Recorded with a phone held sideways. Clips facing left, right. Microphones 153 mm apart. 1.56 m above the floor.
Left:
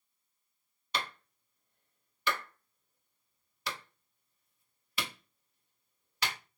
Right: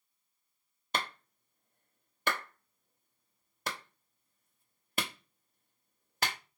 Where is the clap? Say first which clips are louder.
Right 1 dB; 50° right (ahead or behind), 0.6 m.